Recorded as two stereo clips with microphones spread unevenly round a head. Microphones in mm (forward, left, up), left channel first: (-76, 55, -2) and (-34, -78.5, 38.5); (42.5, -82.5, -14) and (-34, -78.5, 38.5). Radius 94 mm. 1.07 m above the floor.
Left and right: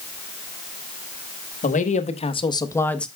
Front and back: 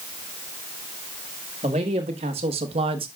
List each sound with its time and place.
1.6 s a man speaking: 130° left, 1.7 m; by 3.1 s 170° right, 1.3 m